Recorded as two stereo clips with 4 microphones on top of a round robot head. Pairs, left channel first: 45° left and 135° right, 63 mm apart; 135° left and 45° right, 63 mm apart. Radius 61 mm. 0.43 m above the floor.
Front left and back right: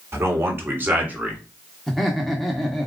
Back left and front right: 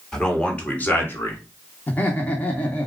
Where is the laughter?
130° left, 1.0 m.